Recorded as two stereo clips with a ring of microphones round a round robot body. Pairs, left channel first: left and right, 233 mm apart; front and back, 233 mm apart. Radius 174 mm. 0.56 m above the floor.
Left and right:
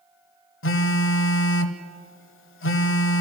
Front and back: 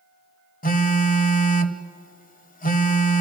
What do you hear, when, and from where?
0.6 s a phone buzzing: 55° left, 1.5 m